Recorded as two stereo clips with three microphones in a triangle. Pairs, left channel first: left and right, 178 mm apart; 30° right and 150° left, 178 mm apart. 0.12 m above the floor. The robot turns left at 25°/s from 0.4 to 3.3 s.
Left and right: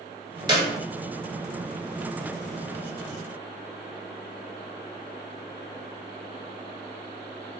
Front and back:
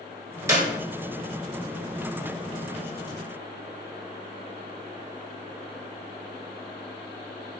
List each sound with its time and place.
0.5 s a clap: 145° right, 1.2 m; by 0.7 s 150° right, 1.2 m